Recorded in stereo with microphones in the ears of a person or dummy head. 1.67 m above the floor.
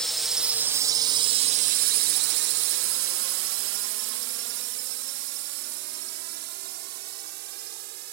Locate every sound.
0.0 s a drone: centre (ahead or behind); by 8.2 s 60° right (ahead or behind)